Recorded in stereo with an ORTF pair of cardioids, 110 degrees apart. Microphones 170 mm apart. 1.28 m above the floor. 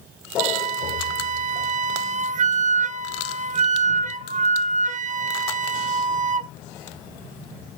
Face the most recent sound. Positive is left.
turn(degrees=-45)